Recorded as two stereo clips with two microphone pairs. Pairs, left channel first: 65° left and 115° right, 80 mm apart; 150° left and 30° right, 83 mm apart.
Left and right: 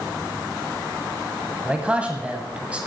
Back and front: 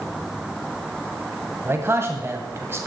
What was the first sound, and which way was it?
A man speaking, 50° right.